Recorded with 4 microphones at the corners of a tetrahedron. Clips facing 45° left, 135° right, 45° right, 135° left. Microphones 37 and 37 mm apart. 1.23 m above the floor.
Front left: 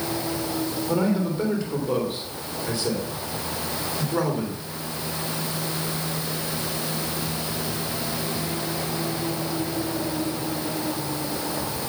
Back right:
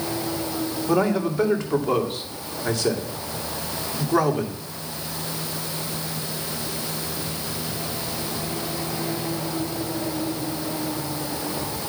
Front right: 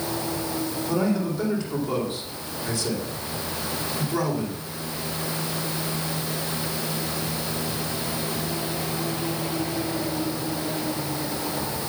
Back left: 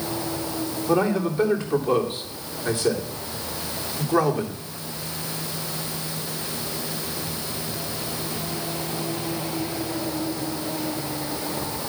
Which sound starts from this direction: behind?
A man speaking, at 0.9 s.